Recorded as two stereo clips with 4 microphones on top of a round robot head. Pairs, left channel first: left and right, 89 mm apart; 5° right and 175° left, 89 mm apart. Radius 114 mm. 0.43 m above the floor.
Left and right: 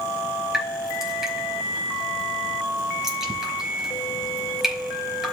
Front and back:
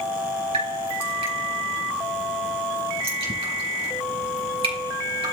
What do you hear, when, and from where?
0.5 s dripping: 175° right, 4.5 m